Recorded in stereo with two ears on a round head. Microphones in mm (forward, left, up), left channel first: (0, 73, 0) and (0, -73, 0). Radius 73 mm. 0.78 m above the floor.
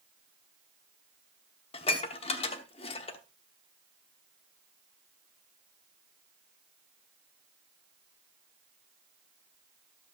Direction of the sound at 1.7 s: 35° left (ahead or behind).